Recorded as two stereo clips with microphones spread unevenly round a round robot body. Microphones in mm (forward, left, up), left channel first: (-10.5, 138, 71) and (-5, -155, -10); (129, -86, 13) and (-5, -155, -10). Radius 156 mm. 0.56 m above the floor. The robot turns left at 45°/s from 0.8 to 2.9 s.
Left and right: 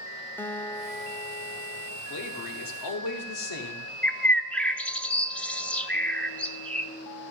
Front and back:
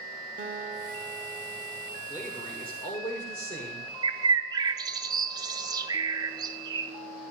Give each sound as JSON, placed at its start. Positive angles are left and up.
{"t": 0.4, "sound": "a guitar", "azimuth_deg": 180, "distance_m": 0.7}
{"t": 2.1, "sound": "a man speaking", "azimuth_deg": 120, "distance_m": 2.0}
{"t": 4.0, "sound": "a bird", "azimuth_deg": -160, "distance_m": 0.6}